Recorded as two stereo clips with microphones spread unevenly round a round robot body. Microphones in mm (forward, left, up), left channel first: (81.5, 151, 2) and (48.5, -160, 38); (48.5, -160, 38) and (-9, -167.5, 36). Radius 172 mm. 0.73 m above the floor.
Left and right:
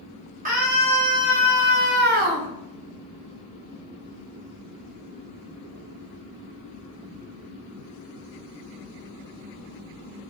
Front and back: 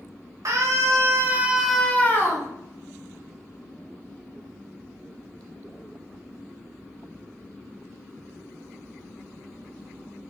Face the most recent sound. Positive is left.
turn(degrees=-25)